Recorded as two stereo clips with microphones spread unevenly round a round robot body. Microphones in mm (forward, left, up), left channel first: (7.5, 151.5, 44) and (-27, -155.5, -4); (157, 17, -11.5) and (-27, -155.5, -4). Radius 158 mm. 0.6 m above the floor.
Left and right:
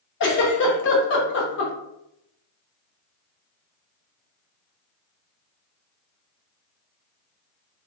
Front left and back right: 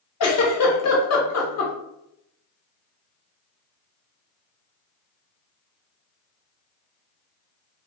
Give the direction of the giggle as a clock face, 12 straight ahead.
11 o'clock.